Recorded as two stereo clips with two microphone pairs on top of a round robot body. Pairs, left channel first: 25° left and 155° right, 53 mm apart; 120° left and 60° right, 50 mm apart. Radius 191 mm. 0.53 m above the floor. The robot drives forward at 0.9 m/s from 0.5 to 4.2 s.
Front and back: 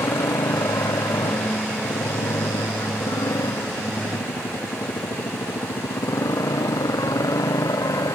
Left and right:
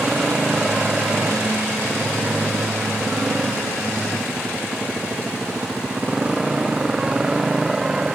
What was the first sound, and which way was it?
A motorcycle, 20° left.